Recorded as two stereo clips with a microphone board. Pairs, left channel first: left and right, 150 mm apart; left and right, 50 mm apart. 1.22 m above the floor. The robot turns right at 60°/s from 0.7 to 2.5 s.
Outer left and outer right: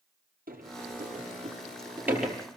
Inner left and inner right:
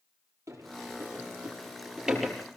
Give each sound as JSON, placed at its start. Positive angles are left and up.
{"t": 0.5, "sound": "a sliding door", "side_deg": -80, "distance_m": 5.0}